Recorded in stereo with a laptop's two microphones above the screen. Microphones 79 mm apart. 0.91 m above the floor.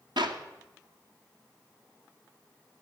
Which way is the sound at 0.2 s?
75° right (ahead or behind).